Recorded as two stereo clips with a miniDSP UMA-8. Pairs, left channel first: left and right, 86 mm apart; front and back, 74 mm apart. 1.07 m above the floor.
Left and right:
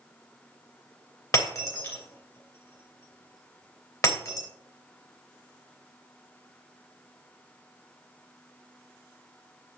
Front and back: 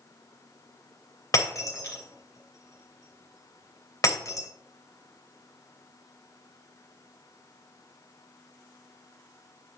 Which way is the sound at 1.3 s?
45° left.